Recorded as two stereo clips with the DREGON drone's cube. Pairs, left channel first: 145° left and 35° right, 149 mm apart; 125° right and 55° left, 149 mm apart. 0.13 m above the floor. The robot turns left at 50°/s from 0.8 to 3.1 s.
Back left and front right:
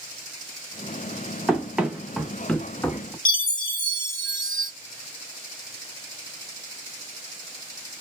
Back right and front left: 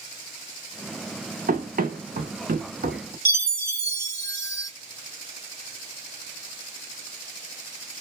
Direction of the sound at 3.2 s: 75° right.